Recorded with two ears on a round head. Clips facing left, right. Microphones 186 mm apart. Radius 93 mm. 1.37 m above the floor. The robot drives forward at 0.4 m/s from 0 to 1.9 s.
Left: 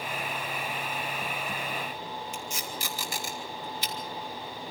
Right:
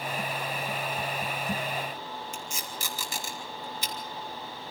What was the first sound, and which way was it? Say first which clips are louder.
Tape being pulled: left 2 dB; 75° right (ahead or behind).